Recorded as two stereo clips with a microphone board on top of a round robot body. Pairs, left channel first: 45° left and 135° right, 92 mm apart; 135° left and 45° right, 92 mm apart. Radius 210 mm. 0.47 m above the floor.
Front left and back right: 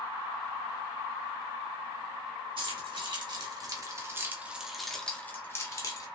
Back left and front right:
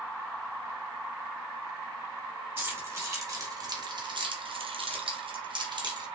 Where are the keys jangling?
110° right, 1.5 m; by 6.0 s 5° right, 1.2 m.